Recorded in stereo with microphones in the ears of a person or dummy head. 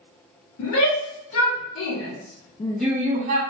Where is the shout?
80° left, 2 m; by 3.4 s 45° right (ahead or behind), 0.7 m.